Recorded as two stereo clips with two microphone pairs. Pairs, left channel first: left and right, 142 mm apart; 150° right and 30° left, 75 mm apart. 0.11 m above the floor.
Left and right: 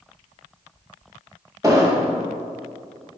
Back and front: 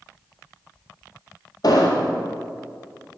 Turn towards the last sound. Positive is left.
turn(degrees=-155)